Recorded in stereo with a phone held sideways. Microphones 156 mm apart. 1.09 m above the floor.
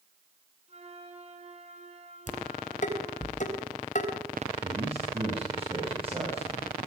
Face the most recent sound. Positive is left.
turn(degrees=-35)  # may be behind; listen again after turning